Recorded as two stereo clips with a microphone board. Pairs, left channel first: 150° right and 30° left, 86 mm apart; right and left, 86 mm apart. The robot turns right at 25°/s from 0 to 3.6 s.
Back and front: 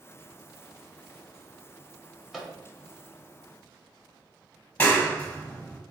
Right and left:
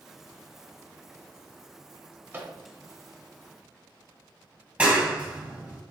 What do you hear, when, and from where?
2.3 s a microwave: 115° left, 0.7 m; by 2.6 s 120° left, 0.7 m
4.8 s a clap: 150° left, 1.0 m